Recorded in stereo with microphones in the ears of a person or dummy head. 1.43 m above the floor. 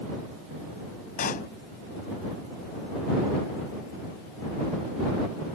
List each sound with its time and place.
1.2 s a pop: 45° left (ahead or behind)